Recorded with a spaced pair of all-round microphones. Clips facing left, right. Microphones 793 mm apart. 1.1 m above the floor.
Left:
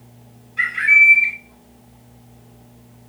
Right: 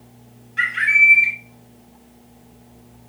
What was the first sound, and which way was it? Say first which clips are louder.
A bird: left 1 dB; 45° right (ahead or behind).